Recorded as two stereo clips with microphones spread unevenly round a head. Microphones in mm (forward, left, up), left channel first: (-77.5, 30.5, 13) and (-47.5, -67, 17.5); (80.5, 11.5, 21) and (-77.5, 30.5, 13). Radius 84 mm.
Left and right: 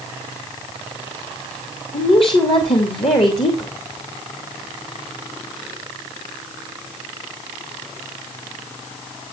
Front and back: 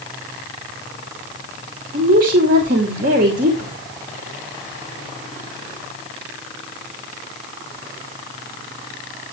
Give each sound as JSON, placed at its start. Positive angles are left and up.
{"t": 1.9, "sound": "a woman speaking", "azimuth_deg": 140, "distance_m": 2.5}